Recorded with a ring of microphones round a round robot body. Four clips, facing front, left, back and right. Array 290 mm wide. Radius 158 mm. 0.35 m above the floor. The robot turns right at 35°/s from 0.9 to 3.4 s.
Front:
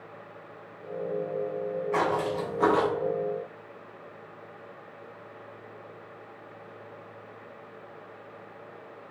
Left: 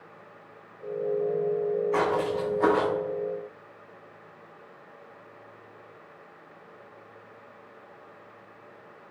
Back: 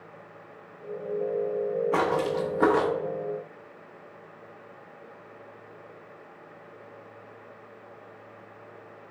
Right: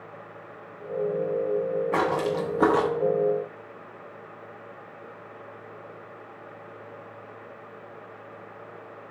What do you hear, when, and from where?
1.9 s footsteps: 130° right, 0.9 m; by 2.9 s 95° right, 0.9 m